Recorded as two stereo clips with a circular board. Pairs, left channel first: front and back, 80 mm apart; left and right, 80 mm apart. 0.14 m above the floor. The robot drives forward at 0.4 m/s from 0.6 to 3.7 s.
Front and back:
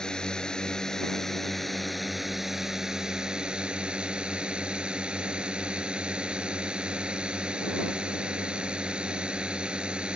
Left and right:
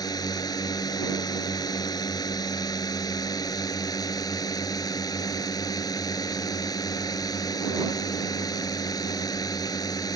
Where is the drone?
80° left; by 10.2 s 105° left.